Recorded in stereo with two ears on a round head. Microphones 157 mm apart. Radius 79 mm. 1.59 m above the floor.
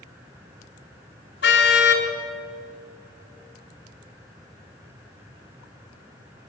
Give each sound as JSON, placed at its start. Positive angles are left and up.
{"t": 1.4, "sound": "a car horn", "side_deg": 70, "distance_m": 3.5}